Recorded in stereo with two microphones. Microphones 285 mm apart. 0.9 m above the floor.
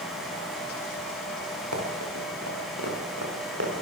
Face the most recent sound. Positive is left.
turn(degrees=-60)  # may be behind; listen again after turning